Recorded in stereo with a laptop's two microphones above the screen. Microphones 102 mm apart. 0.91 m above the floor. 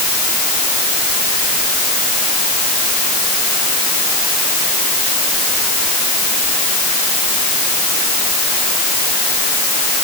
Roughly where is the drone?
No drone in this recording.